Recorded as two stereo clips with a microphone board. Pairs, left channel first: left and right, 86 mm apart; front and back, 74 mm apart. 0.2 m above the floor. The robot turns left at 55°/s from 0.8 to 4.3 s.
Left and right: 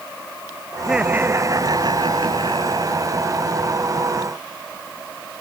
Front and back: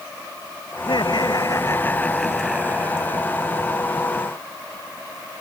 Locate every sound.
0.8 s laughter: 5° right; by 3.2 s 140° right